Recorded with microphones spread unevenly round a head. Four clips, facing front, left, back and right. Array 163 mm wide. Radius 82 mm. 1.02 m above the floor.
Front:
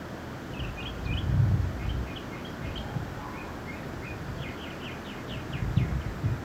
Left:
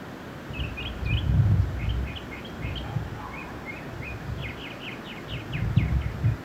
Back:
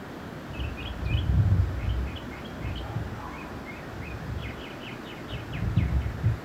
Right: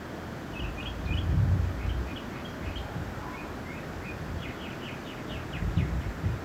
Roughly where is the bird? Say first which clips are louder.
Left 1 dB, even; left.